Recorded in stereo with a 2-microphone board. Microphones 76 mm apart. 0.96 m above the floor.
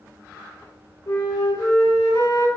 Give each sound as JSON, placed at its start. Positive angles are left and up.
{"t": 1.1, "sound": "a flute", "side_deg": 60, "distance_m": 1.4}